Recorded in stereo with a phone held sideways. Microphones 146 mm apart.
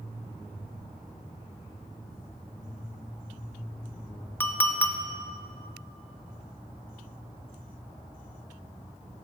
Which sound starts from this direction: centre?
A clink, at 4.4 s.